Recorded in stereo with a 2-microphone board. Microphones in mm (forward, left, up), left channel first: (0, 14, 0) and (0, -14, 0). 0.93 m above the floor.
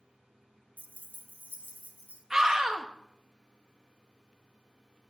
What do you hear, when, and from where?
0.8 s keys jangling: 75° right (ahead or behind), 0.5 m; by 2.2 s 80° right, 1.8 m
2.3 s a scream: 20° right (ahead or behind), 1.3 m